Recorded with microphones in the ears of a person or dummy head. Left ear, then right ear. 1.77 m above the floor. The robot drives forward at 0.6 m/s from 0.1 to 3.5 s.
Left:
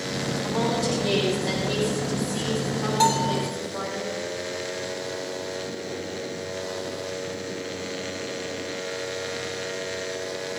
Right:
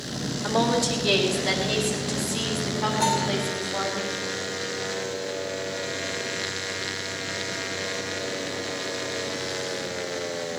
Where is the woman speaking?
30° right (ahead or behind), 3.5 m; by 4.0 s 20° right (ahead or behind), 5.5 m.